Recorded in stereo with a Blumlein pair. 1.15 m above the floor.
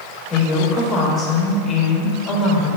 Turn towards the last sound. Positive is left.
turn(degrees=20)